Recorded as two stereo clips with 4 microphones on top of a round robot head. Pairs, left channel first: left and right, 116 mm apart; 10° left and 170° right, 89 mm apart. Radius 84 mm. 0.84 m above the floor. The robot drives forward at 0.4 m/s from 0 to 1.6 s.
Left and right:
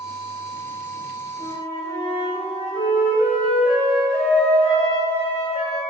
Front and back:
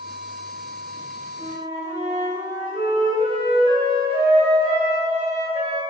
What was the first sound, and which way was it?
A flute, 155° right.